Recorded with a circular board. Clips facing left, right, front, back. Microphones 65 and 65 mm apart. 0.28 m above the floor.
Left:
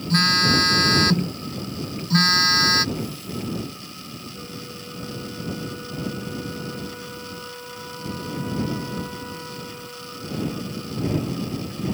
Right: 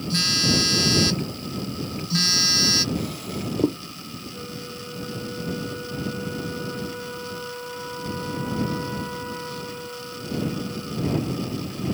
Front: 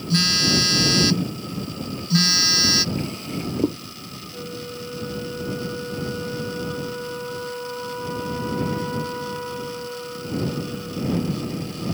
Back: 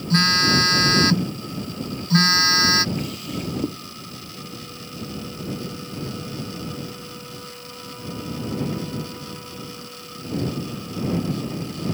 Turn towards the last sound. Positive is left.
turn(degrees=-15)